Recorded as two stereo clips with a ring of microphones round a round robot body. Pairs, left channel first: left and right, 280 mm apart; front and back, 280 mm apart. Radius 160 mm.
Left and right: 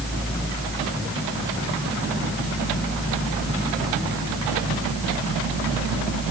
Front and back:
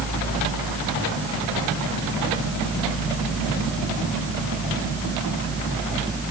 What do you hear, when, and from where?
Only background noise.